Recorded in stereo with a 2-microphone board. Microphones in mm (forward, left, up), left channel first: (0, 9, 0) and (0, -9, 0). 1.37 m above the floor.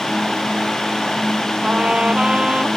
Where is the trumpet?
70° right (ahead or behind).